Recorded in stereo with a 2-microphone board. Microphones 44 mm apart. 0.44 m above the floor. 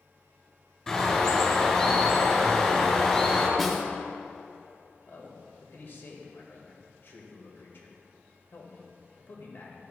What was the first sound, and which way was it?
A bird, 15° left (ahead or behind).